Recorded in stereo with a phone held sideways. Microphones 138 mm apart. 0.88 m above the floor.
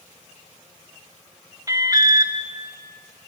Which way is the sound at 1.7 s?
25° right (ahead or behind).